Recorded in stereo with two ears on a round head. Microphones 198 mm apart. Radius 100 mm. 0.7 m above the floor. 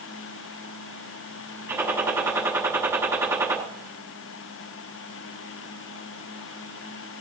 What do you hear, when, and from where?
1.7 s a gunshot: 10° right (ahead or behind), 7.5 m